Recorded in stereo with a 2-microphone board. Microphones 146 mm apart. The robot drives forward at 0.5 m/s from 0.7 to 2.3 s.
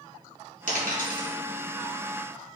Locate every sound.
0.7 s a dropped coin: 60° left (ahead or behind), 1.8 m; by 1.3 s 70° left (ahead or behind), 1.7 m